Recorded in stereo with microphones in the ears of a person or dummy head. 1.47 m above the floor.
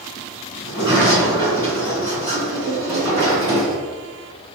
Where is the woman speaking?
I don't hear a woman speaking.